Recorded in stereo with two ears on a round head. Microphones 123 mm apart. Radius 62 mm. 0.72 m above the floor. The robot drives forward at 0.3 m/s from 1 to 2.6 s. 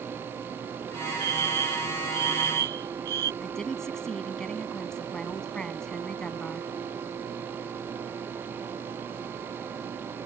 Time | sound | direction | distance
1.2 | a fire alarm | 80° right | ?
3.4 | a woman speaking | 5° left (ahead or behind) | ?